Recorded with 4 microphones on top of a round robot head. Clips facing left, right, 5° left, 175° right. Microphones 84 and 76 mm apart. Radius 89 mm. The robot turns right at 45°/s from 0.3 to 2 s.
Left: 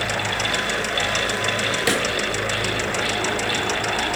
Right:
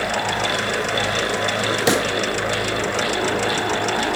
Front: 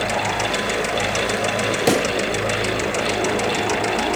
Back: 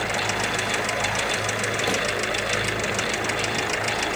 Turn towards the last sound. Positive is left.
turn(degrees=-25)